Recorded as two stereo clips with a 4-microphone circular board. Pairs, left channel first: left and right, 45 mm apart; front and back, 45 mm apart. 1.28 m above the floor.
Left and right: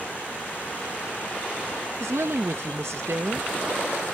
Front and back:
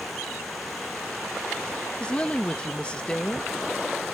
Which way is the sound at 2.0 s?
65° right.